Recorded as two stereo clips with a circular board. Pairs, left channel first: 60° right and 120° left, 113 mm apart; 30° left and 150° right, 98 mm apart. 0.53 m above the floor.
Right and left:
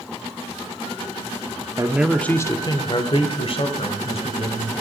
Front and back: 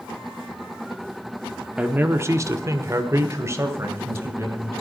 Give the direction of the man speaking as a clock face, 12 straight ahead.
7 o'clock.